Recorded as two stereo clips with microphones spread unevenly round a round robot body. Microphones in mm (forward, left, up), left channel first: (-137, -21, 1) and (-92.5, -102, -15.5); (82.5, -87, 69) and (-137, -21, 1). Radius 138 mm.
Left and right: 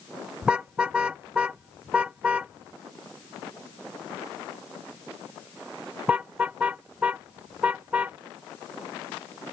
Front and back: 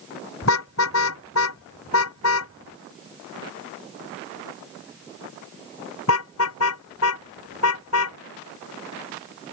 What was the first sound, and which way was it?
A car horn, 25° left.